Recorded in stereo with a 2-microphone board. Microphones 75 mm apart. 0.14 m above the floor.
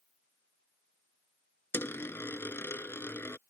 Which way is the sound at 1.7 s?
30° left (ahead or behind).